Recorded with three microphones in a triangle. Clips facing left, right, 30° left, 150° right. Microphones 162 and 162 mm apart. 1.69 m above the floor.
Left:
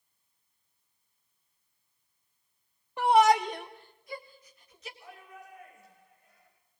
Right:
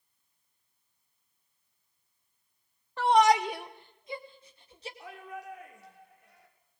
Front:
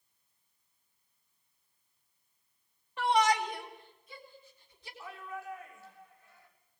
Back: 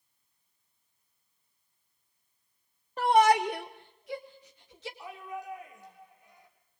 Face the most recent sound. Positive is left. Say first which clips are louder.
# right 6 dB, even
turn(degrees=-75)